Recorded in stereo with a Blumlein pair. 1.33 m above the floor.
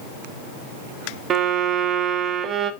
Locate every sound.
1.3 s a violin: 30° right, 1.1 m